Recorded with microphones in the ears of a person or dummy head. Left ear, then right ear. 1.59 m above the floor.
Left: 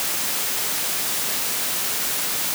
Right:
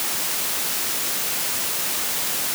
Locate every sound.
Only background noise.